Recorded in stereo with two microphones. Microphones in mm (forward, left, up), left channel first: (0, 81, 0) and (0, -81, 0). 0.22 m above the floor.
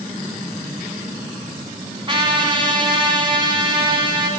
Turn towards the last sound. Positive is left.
turn(degrees=-30)  # may be behind; listen again after turning